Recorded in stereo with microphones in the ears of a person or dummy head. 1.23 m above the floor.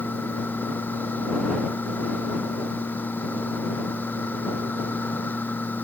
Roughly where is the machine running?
Centre.